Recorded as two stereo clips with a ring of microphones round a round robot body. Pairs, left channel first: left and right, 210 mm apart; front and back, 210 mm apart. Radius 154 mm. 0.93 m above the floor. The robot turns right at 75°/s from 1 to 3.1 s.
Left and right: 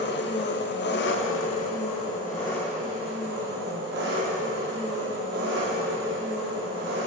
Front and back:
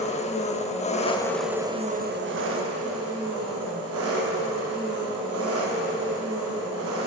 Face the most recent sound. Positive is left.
turn(degrees=-145)